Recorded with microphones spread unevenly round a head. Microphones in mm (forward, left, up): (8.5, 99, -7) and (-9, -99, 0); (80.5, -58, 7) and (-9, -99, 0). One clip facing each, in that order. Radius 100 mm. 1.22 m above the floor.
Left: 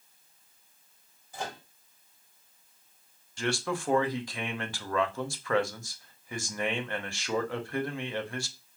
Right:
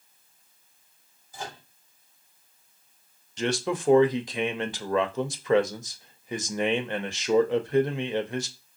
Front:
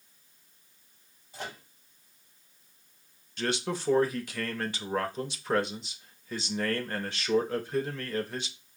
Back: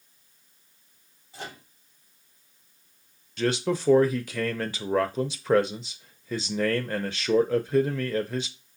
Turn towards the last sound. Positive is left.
turn(degrees=-170)